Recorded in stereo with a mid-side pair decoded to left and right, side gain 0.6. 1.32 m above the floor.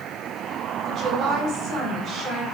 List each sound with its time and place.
0.8 s a woman speaking: 55° right, 6 m